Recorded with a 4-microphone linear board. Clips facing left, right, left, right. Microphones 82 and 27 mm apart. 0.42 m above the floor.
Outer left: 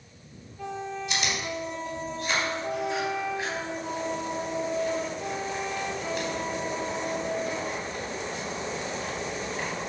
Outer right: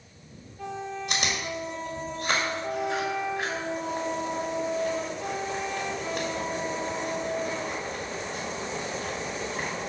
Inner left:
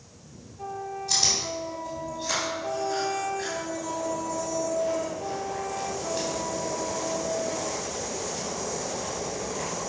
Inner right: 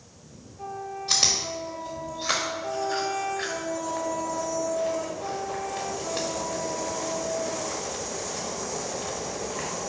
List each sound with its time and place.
1.1 s chewing: 55° right (ahead or behind), 1.9 m